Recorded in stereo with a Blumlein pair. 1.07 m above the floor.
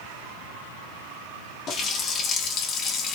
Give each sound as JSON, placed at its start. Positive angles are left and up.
{"t": 1.7, "sound": "a running tap", "azimuth_deg": 30, "distance_m": 0.8}